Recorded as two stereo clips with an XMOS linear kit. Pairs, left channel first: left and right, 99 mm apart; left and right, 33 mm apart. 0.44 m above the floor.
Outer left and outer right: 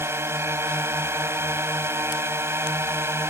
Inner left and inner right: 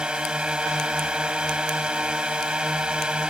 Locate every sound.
0.0 s a drone: 30° right (ahead or behind)